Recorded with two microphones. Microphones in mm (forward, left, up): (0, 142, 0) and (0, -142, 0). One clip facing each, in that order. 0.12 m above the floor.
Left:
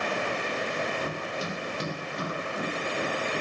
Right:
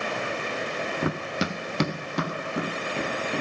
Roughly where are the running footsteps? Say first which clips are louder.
Right 5 dB; right.